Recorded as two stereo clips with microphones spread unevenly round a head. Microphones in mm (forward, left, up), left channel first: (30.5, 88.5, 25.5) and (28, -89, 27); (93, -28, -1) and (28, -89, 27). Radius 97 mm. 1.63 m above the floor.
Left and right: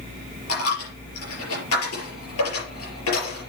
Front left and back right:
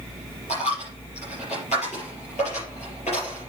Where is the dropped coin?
105° left, 5 m.